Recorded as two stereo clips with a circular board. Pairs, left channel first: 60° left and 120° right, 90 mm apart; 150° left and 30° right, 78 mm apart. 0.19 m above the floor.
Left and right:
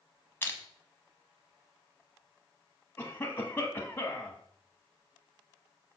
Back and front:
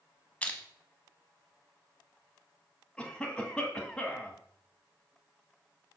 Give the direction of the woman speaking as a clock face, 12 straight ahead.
No woman speaking in this recording.